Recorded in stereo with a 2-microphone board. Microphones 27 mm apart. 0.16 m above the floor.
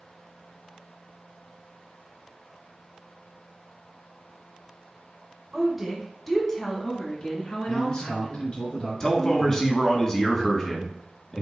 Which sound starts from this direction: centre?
A woman speaking, at 5.5 s.